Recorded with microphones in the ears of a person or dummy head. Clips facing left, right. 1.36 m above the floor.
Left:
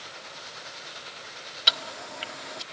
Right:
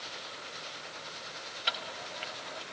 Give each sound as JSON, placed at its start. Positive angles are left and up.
{"t": 1.7, "sound": "ticking", "side_deg": 55, "distance_m": 1.5}